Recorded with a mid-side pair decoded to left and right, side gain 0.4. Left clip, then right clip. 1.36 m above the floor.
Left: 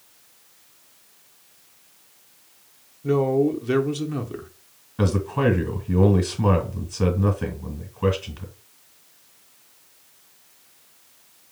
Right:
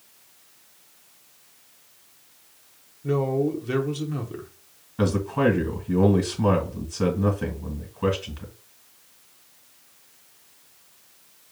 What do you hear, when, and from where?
3.0 s a man speaking: 25° left, 0.8 m
5.0 s a man speaking: 10° left, 1.7 m